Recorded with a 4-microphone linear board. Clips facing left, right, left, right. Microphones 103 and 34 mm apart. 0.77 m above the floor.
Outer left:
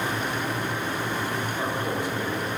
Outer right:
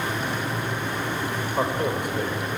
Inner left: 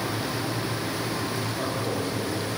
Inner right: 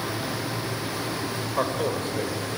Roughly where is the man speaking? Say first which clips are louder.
Outer right 6 dB, inner right 6 dB; right.